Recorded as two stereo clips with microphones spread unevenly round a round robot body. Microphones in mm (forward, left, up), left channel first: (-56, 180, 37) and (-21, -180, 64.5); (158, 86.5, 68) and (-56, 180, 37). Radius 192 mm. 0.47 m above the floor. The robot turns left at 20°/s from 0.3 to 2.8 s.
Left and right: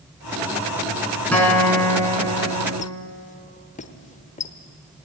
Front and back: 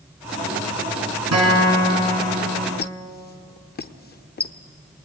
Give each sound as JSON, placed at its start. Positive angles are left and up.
{"t": 1.3, "sound": "a guitar", "azimuth_deg": 180, "distance_m": 5.5}
{"t": 2.8, "sound": "a squeak", "azimuth_deg": 30, "distance_m": 1.0}